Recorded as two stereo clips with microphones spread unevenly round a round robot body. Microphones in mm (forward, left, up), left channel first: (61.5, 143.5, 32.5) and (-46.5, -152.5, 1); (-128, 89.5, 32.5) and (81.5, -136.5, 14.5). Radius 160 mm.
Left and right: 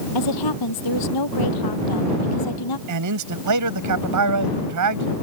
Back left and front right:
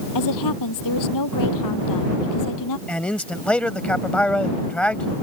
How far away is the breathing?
I don't hear breathing.